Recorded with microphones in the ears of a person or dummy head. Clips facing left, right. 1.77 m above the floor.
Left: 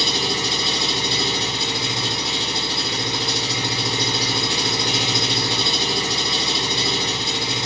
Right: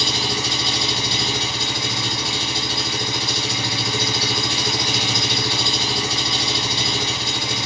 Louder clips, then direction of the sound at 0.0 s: Left 1 dB; 20° left (ahead or behind).